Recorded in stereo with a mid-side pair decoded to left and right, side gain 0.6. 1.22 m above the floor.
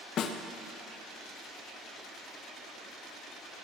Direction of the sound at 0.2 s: 50° left.